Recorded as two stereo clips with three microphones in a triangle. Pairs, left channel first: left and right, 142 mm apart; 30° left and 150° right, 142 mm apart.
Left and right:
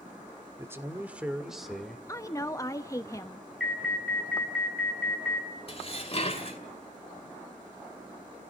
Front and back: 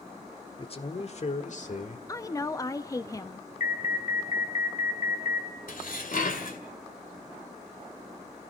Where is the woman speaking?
60° left, 0.9 m.